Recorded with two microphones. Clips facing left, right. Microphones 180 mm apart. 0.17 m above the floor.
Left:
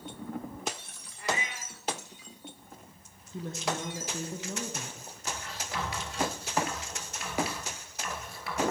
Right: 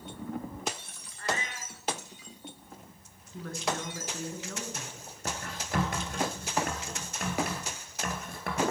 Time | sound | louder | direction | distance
1.2 | a cat meowing | even | 10° left (ahead or behind) | 1.2 m
3.3 | a woman speaking | even | 20° left (ahead or behind) | 1.8 m
5.2 | writing | right 3 dB | 50° right (ahead or behind) | 2.5 m